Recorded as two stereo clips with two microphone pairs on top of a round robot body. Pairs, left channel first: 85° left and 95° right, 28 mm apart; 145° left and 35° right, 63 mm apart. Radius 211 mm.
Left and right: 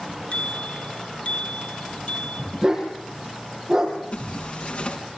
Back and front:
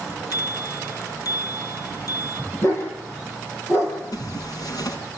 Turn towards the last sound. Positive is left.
turn(degrees=130)